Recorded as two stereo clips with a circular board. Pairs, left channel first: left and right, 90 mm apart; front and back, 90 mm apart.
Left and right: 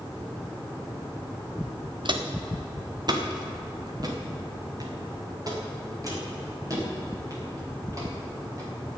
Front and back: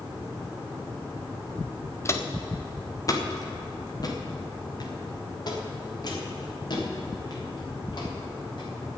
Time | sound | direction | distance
2.0 | footsteps | 60° right | 1.3 m